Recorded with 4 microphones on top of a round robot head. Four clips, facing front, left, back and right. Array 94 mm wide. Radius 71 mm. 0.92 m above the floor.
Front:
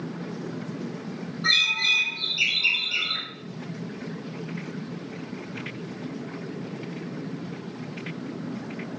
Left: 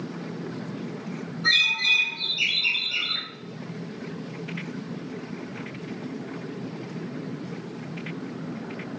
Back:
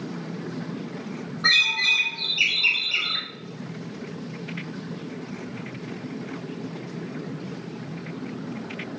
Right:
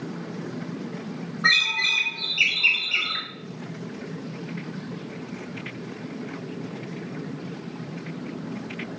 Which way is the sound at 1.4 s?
120° right.